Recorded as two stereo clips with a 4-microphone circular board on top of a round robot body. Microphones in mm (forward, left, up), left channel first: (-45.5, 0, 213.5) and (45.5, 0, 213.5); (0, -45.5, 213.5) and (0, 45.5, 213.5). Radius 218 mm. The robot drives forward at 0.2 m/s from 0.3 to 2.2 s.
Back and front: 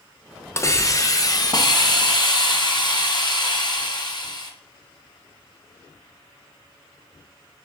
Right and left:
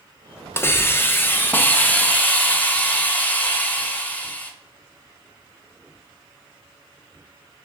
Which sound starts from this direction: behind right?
A hiss, at 0.6 s.